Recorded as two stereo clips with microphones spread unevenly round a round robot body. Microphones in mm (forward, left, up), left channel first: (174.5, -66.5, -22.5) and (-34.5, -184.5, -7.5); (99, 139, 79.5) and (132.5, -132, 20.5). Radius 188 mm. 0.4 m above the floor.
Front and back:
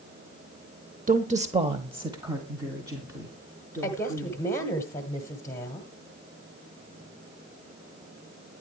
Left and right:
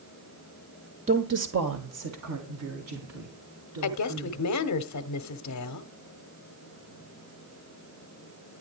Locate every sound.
1.1 s a woman speaking: 110° right, 0.9 m; by 4.4 s 70° right, 5.5 m
3.8 s a woman speaking: 105° left, 1.0 m